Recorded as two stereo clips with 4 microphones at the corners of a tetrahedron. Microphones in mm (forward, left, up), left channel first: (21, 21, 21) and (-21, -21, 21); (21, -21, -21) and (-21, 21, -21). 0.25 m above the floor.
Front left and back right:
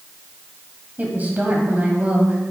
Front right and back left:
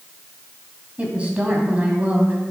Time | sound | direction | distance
1.0 | a woman speaking | 175° right | 1.5 m